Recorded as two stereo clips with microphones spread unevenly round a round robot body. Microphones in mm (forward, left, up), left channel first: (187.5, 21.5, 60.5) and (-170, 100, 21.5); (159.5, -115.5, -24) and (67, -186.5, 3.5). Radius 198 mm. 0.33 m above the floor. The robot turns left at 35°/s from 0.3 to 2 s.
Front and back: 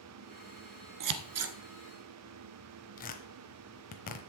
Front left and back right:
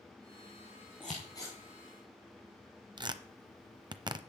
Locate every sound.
1.0 s scissors: 130° left, 1.4 m; by 1.6 s 110° left, 1.4 m
3.0 s tearing paper: 85° right, 1.0 m